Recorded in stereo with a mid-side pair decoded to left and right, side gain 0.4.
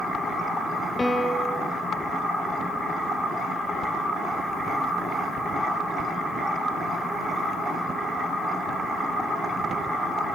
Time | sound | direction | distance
1.0 | a piano | 20° left | 1.4 m